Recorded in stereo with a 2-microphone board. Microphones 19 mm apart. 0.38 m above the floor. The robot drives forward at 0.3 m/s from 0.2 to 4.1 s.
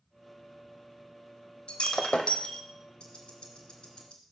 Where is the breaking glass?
60° left (ahead or behind), 1.0 m; by 2.6 s 70° left (ahead or behind), 0.9 m.